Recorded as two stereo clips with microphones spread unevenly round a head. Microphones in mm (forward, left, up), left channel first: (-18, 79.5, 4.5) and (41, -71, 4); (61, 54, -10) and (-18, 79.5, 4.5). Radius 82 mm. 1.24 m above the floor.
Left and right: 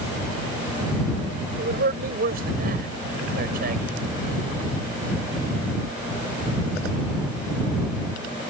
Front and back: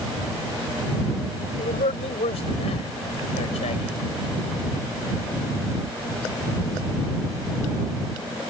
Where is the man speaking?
30° right.